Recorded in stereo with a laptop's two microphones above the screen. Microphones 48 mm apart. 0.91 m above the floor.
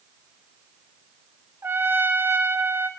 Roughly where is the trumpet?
Right.